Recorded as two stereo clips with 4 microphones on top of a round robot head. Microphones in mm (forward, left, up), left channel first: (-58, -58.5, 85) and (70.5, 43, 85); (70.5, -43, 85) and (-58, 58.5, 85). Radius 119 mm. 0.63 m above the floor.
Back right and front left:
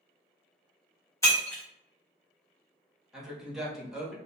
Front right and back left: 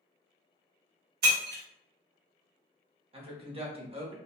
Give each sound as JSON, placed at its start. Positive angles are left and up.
{"t": 1.2, "sound": "breaking glass", "azimuth_deg": 145, "distance_m": 1.1}
{"t": 3.1, "sound": "a woman speaking", "azimuth_deg": 125, "distance_m": 1.0}